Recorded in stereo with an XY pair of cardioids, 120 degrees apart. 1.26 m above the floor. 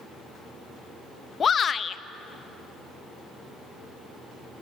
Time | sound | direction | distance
1.4 | a shout | 35° left | 1.0 m